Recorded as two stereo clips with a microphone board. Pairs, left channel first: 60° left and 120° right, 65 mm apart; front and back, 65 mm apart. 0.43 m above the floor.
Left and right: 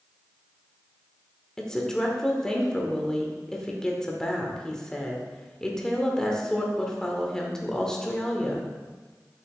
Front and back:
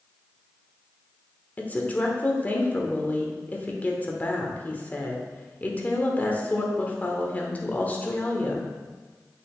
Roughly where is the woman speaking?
Ahead.